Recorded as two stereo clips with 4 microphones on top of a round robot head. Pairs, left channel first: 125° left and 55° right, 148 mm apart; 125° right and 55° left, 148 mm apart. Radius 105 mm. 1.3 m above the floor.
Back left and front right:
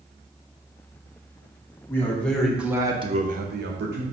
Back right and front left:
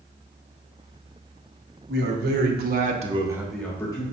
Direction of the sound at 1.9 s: 50° left.